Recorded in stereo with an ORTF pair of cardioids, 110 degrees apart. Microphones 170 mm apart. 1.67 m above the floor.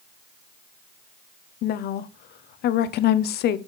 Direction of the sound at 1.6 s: 65° left.